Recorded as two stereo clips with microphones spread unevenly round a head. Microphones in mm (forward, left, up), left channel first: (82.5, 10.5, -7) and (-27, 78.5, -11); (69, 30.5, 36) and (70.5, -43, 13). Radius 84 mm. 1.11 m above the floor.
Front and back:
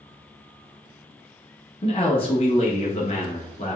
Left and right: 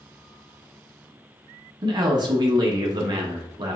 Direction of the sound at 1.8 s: 95° right.